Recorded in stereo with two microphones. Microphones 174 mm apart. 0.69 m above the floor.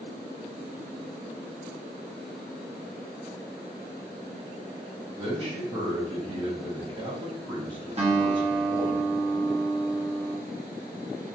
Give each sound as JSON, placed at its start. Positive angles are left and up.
{"t": 5.2, "sound": "a man speaking", "side_deg": -30, "distance_m": 1.0}
{"t": 8.0, "sound": "a guitar", "side_deg": -40, "distance_m": 1.0}